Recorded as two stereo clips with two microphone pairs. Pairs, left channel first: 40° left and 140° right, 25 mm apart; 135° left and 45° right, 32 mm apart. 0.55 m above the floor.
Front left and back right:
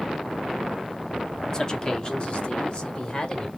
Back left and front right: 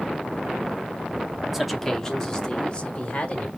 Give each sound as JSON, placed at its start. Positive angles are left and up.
{"t": 1.5, "sound": "a man speaking", "azimuth_deg": 30, "distance_m": 0.6}